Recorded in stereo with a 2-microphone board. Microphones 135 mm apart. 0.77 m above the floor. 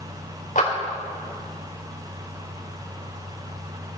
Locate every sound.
0.6 s a clap: 75° left (ahead or behind), 3 m